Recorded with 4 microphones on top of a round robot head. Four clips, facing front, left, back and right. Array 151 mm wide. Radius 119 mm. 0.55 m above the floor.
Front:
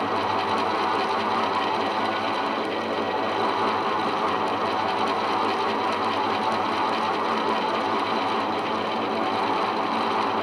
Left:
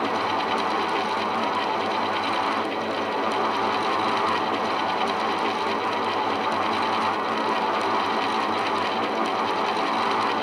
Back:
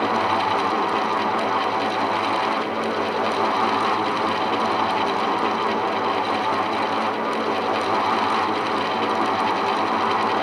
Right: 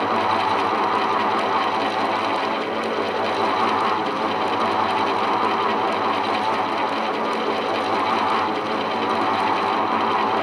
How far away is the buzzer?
No buzzer in this recording.